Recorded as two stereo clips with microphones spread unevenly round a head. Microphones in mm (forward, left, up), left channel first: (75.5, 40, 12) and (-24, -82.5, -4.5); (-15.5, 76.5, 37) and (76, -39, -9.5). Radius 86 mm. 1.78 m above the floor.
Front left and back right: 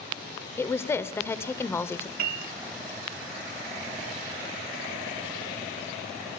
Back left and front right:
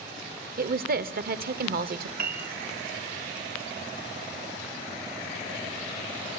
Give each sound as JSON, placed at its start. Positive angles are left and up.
{"t": 0.6, "sound": "a woman speaking", "azimuth_deg": -25, "distance_m": 1.0}
{"t": 2.2, "sound": "a piano", "azimuth_deg": -100, "distance_m": 1.5}